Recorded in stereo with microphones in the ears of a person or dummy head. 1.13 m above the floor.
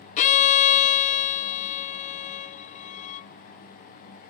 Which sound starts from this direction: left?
A violin, at 0.2 s.